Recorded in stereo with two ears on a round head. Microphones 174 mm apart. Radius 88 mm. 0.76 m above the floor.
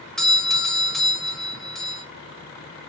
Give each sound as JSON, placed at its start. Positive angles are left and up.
{"t": 0.2, "sound": "a doorbell", "side_deg": 0, "distance_m": 0.8}